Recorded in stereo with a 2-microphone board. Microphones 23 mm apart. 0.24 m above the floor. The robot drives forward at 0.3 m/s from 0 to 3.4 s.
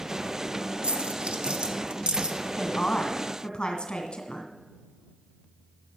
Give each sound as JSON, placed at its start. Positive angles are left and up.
{"t": 0.8, "sound": "a dropped coin", "side_deg": -65, "distance_m": 1.0}
{"t": 2.6, "sound": "a woman speaking", "side_deg": 45, "distance_m": 2.0}